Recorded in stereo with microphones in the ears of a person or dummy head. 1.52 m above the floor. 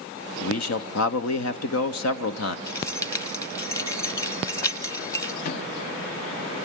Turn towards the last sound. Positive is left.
turn(degrees=50)  # may be behind; listen again after turning